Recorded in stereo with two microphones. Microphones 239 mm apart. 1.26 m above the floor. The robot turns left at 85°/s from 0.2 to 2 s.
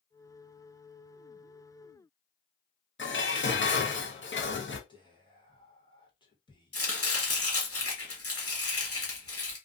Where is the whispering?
20° left (ahead or behind), 1.0 m.